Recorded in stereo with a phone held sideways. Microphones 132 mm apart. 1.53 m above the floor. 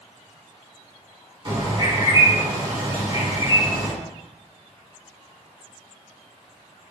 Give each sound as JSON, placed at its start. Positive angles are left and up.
{"t": 1.4, "sound": "a bird", "side_deg": -40, "distance_m": 2.5}